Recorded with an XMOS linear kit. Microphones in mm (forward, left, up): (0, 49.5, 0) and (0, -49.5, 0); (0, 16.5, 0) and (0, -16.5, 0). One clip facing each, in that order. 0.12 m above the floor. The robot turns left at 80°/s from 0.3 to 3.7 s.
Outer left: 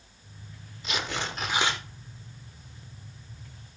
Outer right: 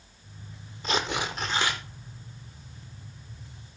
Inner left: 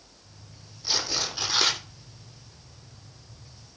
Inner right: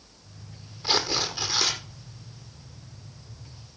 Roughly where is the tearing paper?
Behind right.